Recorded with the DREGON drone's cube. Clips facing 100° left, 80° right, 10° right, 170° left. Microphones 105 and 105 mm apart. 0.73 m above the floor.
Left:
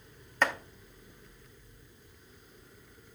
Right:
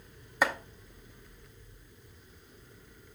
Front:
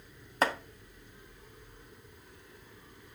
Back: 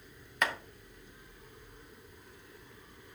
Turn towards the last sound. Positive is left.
turn(degrees=-10)